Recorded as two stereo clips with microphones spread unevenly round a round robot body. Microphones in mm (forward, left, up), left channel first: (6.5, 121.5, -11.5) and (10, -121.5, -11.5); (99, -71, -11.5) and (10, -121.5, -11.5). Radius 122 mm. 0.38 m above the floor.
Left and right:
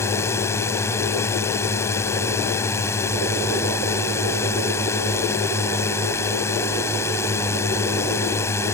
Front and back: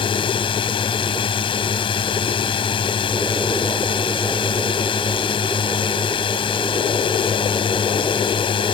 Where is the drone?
15° left.